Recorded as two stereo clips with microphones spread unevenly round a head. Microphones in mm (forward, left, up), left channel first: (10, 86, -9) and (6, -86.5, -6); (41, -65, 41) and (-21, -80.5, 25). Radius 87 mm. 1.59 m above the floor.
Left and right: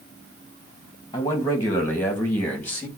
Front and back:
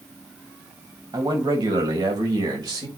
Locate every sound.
1.1 s a man speaking: 160° left, 2.5 m; by 2.9 s 170° left, 3.5 m